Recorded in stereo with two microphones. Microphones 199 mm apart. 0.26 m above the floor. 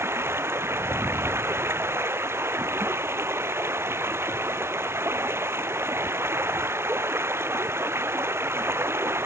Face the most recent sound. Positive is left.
turn(degrees=-10)  # may be behind; listen again after turning